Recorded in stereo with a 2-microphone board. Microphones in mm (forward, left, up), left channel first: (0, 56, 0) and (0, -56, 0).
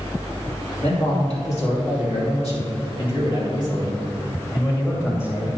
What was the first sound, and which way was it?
A man speaking, 80° left.